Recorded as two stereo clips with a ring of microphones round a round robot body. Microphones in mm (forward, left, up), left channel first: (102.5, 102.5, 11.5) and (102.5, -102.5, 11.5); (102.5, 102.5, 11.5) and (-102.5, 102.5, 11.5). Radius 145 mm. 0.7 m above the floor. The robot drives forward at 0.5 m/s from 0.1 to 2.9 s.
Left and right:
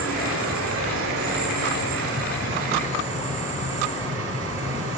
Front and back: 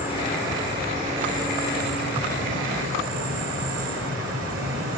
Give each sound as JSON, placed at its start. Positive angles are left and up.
{"t": 0.0, "sound": "an insect", "azimuth_deg": -95, "distance_m": 1.6}